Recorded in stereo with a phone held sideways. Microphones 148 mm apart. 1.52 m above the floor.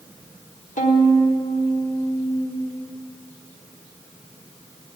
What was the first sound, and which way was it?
A violin, 60° left (ahead or behind).